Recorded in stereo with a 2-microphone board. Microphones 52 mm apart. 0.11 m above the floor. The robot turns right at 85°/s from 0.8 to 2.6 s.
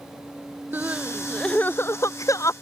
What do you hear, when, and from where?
0.7 s crying: 35° right (ahead or behind); by 2.5 s 70° left (ahead or behind)